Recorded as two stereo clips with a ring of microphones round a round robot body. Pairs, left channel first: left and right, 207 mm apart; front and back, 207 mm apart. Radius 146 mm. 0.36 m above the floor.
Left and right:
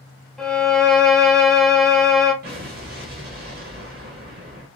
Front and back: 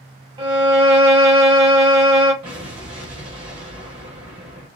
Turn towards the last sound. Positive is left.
turn(degrees=-120)